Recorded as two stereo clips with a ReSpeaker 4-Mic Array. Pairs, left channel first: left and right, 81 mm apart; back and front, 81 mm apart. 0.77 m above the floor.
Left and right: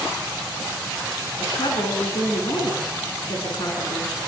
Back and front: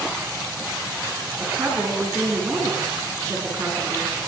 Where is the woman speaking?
60° left, 7 m.